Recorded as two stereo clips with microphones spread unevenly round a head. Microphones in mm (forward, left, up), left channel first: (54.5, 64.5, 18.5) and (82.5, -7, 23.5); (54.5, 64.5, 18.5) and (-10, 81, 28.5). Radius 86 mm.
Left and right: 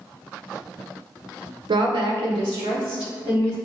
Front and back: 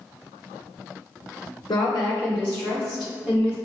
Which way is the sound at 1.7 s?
60° right.